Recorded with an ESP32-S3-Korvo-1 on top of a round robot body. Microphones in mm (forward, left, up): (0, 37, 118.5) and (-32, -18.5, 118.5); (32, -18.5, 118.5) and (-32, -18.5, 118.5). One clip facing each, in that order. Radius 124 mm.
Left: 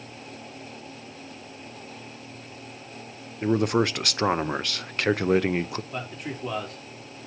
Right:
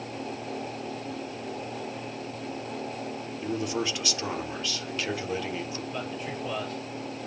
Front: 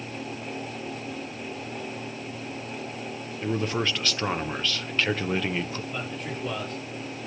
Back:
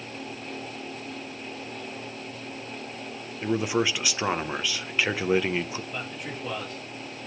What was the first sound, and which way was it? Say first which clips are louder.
A man speaking: left 8 dB, back 2 dB; 100° left.